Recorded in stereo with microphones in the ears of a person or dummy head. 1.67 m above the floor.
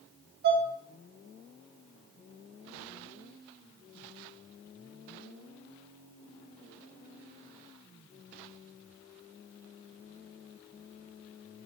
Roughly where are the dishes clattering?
Right.